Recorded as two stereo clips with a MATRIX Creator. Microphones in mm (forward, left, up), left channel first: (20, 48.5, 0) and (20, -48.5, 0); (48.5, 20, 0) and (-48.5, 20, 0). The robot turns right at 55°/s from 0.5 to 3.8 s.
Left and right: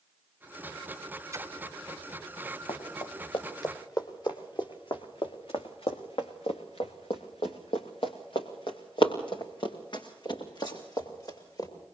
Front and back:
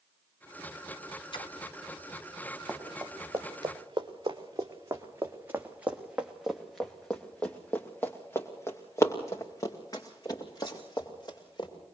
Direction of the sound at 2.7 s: 90° left.